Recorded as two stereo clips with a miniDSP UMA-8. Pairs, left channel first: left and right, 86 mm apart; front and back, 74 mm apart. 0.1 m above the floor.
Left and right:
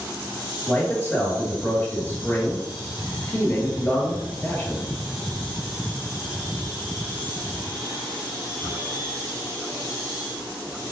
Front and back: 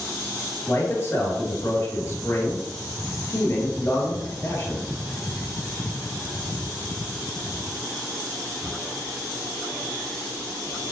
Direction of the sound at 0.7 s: 35° left.